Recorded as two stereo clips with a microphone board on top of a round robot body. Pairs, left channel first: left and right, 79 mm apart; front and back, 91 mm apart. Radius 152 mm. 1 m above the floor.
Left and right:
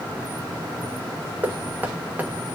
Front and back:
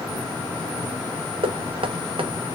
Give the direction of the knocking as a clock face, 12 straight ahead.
5 o'clock.